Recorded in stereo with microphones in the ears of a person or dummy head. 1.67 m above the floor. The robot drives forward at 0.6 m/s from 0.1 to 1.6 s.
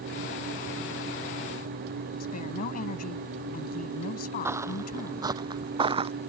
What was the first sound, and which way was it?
A woman speaking, 50° left (ahead or behind).